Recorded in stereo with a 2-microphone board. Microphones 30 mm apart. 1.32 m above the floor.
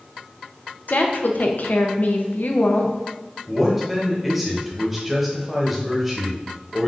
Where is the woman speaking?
60° left (ahead or behind), 0.5 m.